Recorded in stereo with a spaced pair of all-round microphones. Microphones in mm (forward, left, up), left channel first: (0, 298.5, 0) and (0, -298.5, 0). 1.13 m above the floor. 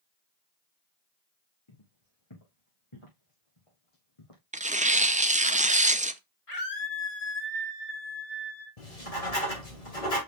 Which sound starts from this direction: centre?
Tearing paper, at 4.5 s.